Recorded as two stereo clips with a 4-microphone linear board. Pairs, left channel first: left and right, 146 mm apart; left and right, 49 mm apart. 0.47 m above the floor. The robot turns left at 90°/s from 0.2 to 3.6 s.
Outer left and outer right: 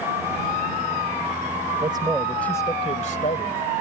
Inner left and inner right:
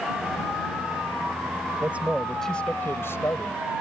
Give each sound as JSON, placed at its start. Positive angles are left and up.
{"t": 1.8, "sound": "a man speaking", "azimuth_deg": -135}